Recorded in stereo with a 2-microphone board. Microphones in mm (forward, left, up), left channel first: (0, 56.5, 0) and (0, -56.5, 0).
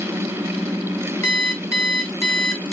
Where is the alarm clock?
25° left (ahead or behind), 0.9 m.